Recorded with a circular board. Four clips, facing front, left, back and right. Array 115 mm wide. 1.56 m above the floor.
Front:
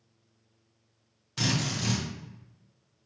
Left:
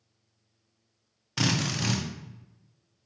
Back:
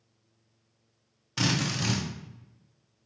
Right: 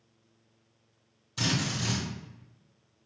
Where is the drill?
115° left, 0.9 m.